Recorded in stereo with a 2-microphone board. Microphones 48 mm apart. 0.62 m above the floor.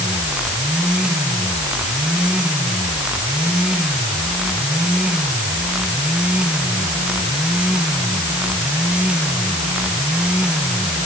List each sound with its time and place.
Only background noise.